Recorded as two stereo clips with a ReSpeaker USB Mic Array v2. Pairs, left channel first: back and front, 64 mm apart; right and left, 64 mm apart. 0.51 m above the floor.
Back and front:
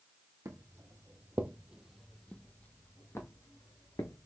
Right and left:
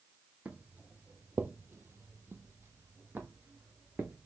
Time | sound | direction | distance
0.5 | footsteps | 20° left | 0.9 m